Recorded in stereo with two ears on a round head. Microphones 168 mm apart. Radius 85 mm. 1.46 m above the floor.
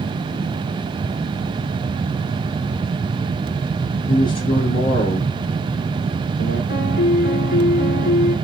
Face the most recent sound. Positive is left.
turn(degrees=55)  # may be behind; listen again after turning